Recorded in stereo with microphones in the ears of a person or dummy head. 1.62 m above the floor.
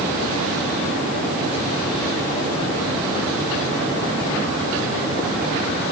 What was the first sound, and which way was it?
Only background noise.